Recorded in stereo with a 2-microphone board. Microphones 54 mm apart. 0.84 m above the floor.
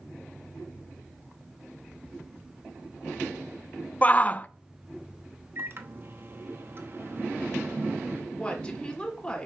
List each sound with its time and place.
4.0 s a shout: 30° left (ahead or behind), 0.5 m
5.5 s a microwave: 45° right (ahead or behind), 0.9 m
8.3 s a woman speaking: 20° left (ahead or behind), 2.5 m